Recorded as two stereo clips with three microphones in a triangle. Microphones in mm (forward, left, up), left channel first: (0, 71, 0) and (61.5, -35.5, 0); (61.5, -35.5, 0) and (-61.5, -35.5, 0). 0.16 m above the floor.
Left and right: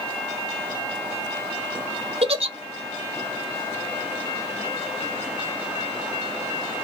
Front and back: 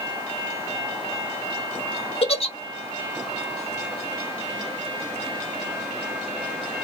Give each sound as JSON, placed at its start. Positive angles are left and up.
{"t": 2.2, "sound": "a giggle", "azimuth_deg": -30, "distance_m": 0.5}